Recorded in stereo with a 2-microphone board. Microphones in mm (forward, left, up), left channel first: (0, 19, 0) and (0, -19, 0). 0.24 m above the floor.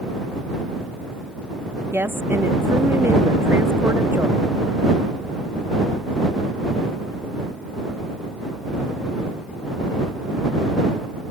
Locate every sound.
1.9 s a woman speaking: 75° right (ahead or behind)